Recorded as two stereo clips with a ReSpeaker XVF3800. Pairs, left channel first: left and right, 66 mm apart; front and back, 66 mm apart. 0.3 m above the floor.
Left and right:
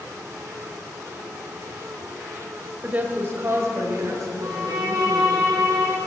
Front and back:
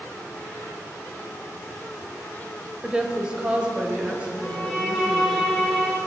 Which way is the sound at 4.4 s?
85° right.